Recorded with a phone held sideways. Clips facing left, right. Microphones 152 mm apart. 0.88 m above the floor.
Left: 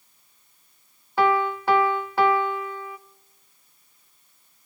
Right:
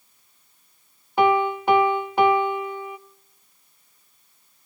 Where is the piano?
20° right (ahead or behind), 0.7 m.